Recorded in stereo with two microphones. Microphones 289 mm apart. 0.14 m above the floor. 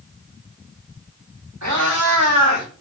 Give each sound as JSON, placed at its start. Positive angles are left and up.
{"t": 1.6, "sound": "a cat meowing", "side_deg": -65, "distance_m": 3.5}